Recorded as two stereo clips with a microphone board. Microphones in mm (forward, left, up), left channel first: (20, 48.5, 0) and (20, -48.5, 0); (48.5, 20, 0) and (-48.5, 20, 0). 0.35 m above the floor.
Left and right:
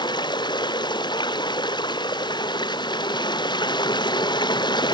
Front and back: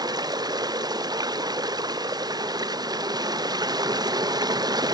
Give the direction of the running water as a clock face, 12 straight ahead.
8 o'clock.